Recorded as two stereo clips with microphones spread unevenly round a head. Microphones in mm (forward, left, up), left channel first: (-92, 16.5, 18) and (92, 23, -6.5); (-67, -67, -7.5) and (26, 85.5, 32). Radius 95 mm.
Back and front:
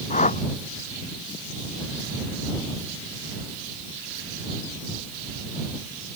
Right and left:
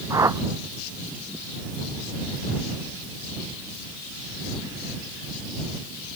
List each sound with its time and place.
0.1 s a whoosh: 130° left